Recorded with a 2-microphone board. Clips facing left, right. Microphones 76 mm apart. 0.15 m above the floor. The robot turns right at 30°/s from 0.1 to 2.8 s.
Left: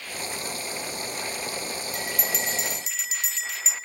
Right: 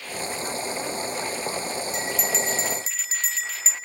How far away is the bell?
About 1.6 m.